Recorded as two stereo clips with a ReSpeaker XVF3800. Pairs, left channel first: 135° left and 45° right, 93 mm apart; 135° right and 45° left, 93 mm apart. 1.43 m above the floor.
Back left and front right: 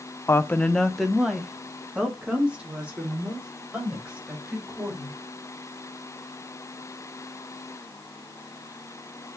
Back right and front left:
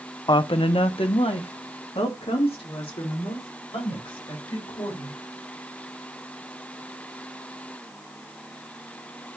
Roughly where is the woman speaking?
Behind.